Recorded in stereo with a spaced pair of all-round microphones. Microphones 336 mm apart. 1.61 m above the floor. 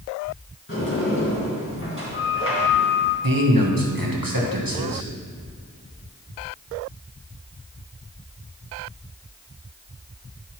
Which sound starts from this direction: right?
A man speaking, at 3.2 s.